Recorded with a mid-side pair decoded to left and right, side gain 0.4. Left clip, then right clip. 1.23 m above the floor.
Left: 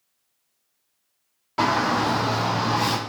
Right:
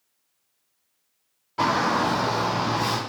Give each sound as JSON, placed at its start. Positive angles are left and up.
{"t": 1.6, "sound": "a shout", "azimuth_deg": 60, "distance_m": 2.0}